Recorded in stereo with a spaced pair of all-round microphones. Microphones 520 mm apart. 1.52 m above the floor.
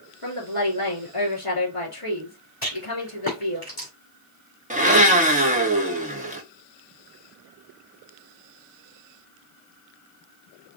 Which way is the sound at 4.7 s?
15° right (ahead or behind).